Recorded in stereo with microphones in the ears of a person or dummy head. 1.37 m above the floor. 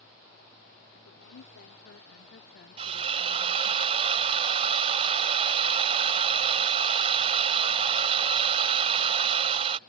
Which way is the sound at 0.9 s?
90° left.